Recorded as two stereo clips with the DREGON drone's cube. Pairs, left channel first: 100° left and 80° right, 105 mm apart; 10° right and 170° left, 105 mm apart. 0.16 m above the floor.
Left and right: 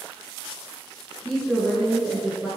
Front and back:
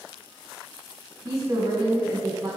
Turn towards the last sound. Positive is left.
turn(degrees=-155)